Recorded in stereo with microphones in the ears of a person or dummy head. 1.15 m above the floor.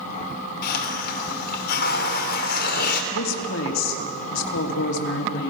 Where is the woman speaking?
70° left (ahead or behind), 3 m.